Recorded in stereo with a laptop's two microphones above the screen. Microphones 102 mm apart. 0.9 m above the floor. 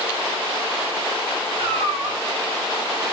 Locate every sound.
1.6 s a cat meowing: 65° right (ahead or behind), 3 m